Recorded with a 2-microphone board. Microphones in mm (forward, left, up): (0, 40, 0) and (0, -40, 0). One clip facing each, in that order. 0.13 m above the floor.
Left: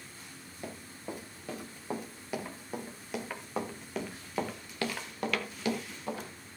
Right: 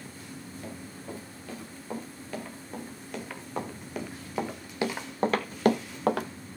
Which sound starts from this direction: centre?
Running footsteps, at 0.6 s.